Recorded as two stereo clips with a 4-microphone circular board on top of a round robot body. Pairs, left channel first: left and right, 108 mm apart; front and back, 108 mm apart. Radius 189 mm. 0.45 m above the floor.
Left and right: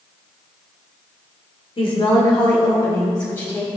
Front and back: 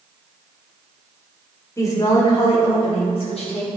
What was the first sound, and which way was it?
A woman speaking, 60° left.